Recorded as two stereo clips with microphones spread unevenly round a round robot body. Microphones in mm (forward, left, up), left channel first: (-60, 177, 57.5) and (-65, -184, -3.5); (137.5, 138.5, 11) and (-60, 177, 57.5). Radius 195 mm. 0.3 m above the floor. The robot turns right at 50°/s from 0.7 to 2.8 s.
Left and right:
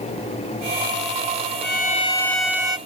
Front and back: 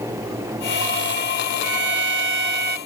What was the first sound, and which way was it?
A violin, 150° left.